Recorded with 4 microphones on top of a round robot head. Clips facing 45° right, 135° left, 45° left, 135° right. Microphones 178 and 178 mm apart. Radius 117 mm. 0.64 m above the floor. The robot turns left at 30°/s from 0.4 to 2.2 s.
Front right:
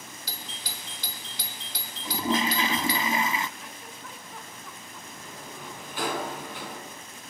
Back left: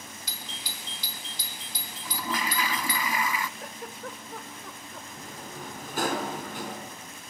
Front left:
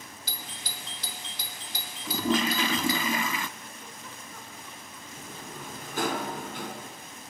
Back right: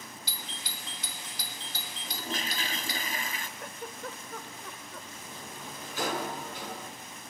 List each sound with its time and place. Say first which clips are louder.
0.3 s a doorbell: front right 1 dB, front left 1 dB; 10° left, 3 m; by 3.0 s 45° right, 3 m
2.0 s a toilet flushing: front right 6 dB, front left 12 dB; 25° left, 0.7 m; by 3.5 s 20° left, 0.7 m
3.6 s a giggle: back left 5 dB, back right 5 dB; 175° right, 2.5 m
5.1 s a sliding door: back left 1 dB, front left 3 dB; 85° left, 4.5 m